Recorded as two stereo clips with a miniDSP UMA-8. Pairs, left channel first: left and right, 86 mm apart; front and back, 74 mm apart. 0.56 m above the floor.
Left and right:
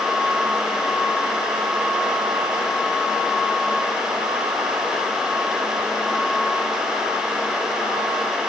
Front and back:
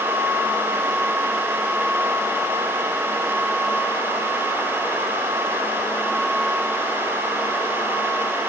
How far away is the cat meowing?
No cat meowing in this recording.